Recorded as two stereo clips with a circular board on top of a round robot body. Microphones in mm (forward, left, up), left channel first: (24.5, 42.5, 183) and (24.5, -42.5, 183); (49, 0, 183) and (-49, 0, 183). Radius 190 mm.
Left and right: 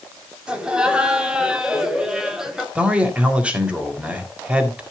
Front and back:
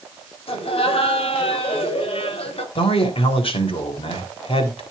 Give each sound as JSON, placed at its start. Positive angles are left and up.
{"t": 0.5, "sound": "laughter", "azimuth_deg": -10, "distance_m": 5.0}
{"t": 2.8, "sound": "a man speaking", "azimuth_deg": -15, "distance_m": 3.5}